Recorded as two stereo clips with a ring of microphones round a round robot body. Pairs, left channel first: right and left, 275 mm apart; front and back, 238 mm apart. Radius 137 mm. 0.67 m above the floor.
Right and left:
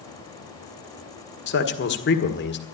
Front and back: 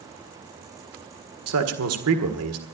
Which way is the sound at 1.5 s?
145° right.